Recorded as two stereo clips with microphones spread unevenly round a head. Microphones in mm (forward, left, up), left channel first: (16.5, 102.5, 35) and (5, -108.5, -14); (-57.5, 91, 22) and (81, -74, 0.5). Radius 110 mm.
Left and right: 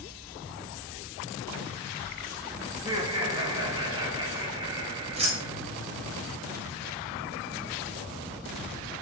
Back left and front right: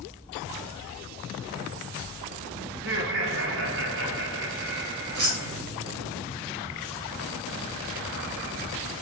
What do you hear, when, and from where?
2.7 s laughter: 20° right, 2 m
5.1 s keys jangling: 30° right, 3.5 m